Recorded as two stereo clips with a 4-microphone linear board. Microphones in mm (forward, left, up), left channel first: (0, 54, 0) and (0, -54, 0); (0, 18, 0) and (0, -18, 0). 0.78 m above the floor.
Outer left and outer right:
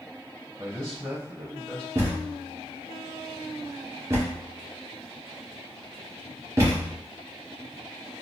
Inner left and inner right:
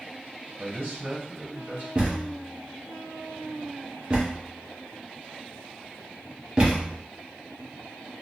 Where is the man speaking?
55° right (ahead or behind), 1.9 m.